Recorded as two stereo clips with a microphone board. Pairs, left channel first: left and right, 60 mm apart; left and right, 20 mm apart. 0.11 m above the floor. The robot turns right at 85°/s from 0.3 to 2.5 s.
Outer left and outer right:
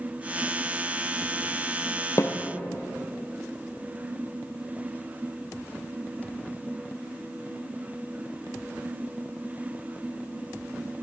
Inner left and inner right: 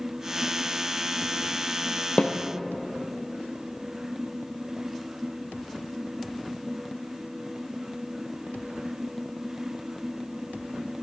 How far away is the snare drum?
About 1.0 m.